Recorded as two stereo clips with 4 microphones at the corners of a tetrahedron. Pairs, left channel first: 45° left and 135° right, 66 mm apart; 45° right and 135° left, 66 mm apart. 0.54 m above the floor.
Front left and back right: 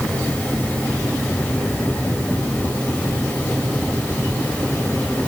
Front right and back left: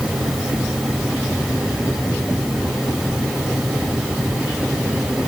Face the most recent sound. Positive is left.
No sound to turn to.